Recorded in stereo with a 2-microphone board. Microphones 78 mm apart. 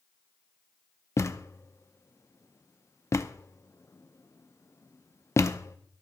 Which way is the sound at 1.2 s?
35° left (ahead or behind).